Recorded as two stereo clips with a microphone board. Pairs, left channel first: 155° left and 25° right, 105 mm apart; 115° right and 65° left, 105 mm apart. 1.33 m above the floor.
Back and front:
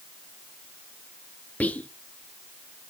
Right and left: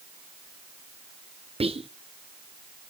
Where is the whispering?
80° left, 0.5 m.